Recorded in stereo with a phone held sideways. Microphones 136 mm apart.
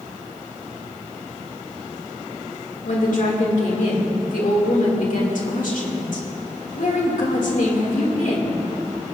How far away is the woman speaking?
About 2 m.